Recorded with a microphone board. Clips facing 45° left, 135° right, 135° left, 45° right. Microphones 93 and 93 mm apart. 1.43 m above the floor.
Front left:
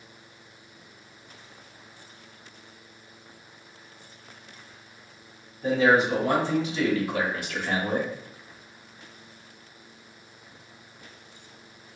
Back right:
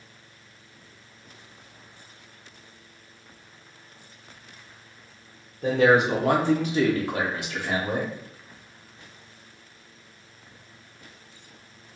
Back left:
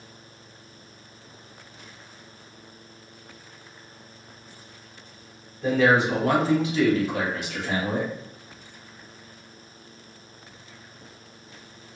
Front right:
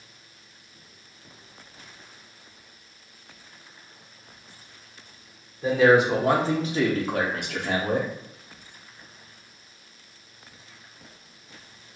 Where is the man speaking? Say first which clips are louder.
Back right 2 dB, front right 2 dB; 125° right, 1.2 m; by 8.1 s 45° right, 1.0 m.